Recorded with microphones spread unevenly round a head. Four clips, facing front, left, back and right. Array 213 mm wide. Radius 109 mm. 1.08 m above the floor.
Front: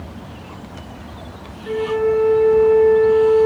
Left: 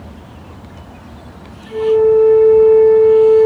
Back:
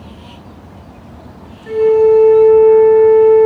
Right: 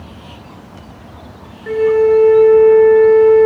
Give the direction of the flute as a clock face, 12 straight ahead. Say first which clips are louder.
Even, back 9 dB; 3 o'clock.